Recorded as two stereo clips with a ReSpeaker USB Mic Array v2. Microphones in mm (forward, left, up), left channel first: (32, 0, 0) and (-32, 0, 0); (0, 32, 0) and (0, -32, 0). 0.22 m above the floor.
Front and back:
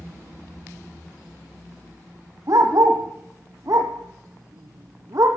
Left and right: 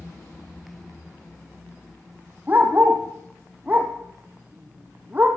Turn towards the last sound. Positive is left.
turn(degrees=-150)